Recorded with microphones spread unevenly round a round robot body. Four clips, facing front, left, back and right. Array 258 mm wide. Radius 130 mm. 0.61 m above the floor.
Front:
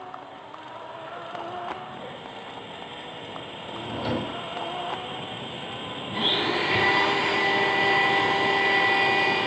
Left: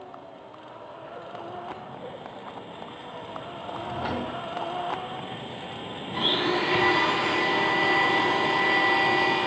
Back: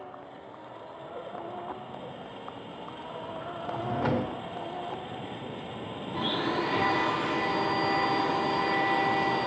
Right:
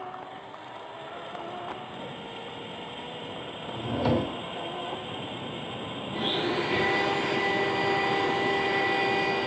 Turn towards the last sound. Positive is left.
turn(degrees=40)